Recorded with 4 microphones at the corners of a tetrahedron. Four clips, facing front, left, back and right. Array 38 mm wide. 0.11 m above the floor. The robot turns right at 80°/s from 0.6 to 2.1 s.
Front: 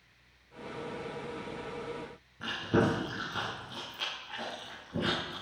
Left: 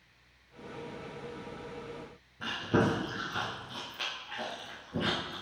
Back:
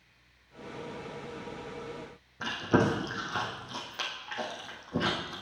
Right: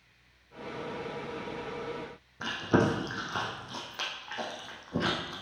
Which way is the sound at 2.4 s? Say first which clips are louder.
Right 2 dB, back 2 dB; 140° right.